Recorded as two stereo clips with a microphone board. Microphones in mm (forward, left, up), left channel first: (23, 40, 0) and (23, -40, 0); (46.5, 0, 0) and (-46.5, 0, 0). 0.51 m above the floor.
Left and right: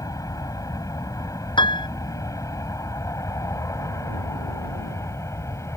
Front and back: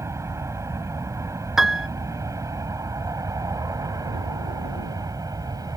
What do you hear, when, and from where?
0.0 s an aircraft: 125° left; by 5.8 s 135° left
1.6 s a piano: 95° left